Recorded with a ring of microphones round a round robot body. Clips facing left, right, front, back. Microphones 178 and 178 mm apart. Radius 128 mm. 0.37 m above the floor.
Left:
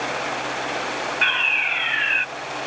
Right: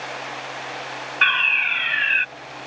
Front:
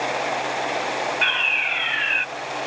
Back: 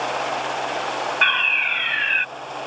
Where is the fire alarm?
140° right.